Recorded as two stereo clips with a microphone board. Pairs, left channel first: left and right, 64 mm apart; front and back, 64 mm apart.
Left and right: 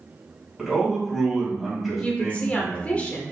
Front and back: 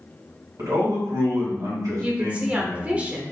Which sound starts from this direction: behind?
A man speaking, at 0.6 s.